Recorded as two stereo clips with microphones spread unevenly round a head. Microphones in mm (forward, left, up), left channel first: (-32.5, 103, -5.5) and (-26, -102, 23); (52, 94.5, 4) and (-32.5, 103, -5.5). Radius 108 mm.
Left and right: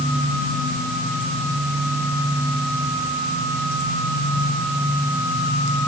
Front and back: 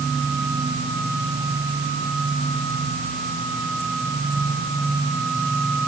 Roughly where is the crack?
No crack in this recording.